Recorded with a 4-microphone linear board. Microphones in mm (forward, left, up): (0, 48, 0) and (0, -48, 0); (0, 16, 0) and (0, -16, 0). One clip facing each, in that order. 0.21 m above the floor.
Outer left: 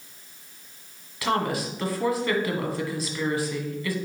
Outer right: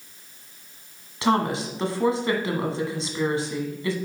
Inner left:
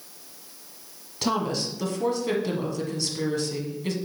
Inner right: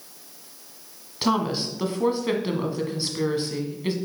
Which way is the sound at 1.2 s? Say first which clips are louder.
Outer right 3 dB, inner right 2 dB; 25° right (ahead or behind).